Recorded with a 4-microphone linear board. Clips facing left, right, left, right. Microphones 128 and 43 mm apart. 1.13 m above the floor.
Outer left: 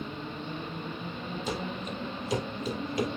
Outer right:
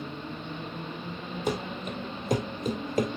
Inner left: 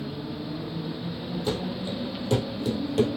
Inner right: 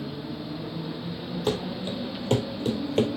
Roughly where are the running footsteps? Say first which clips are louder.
Outer right 5 dB, inner right 2 dB; right.